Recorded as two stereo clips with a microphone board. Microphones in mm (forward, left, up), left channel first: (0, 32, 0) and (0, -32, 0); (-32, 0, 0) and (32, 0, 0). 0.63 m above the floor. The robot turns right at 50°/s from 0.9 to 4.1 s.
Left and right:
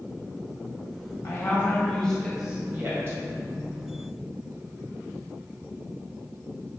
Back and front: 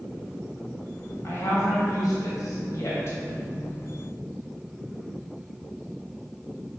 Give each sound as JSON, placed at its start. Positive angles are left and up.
{"t": 1.2, "sound": "a woman speaking", "azimuth_deg": 130, "distance_m": 2.5}